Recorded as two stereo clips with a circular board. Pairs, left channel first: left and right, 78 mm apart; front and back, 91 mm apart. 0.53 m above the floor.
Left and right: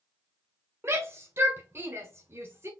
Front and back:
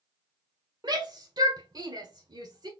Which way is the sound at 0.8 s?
145° right.